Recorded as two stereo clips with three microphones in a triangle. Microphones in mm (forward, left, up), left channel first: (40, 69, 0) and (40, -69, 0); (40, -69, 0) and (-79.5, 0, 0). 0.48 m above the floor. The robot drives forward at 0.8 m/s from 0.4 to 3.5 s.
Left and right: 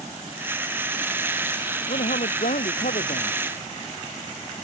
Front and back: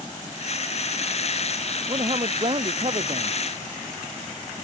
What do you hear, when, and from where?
1.9 s a man speaking: 100° left; by 3.4 s 105° left